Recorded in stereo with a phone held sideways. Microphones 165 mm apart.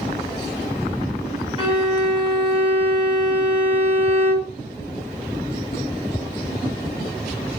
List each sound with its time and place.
1.6 s a violin: 25° right (ahead or behind), 1.8 m